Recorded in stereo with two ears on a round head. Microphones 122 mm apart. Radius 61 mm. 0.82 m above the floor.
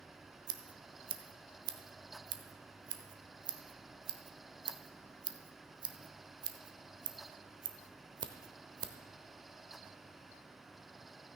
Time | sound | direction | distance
0.5 | scissors | 30° right (ahead or behind) | 1.0 m